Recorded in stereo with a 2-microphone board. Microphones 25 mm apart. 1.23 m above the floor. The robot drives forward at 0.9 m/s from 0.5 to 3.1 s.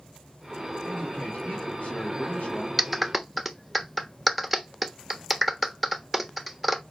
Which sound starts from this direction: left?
A man speaking, at 0.8 s.